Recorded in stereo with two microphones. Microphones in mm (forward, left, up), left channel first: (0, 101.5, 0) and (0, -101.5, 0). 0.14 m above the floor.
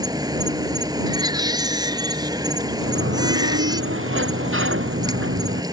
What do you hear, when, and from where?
0.0 s an insect: 20° right (ahead or behind)
1.1 s a baby crying: 20° right (ahead or behind)
2.8 s a sliding door: 80° right